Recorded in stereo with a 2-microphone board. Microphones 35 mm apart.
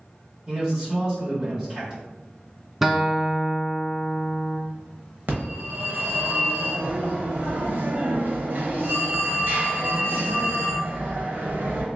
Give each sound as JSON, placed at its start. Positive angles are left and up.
{"t": 0.5, "sound": "a man speaking", "side_deg": -20, "distance_m": 1.3}
{"t": 2.8, "sound": "a guitar", "side_deg": -5, "distance_m": 0.6}
{"t": 5.3, "sound": "a phone ringing", "side_deg": -55, "distance_m": 0.9}